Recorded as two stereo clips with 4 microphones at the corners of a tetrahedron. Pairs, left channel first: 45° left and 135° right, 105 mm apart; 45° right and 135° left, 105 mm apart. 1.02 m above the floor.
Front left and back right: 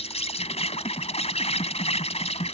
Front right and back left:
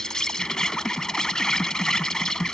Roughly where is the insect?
Ahead left.